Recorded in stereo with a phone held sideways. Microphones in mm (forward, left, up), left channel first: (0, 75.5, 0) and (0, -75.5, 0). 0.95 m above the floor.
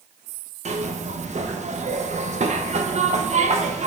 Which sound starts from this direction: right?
A zipper, at 0.7 s.